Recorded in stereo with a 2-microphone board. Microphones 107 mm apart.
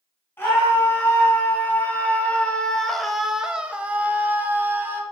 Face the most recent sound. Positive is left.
turn(degrees=-20)  # may be behind; listen again after turning